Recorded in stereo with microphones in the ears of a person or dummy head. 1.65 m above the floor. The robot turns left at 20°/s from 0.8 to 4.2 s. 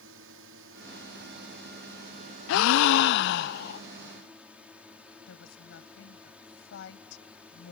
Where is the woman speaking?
70° left (ahead or behind).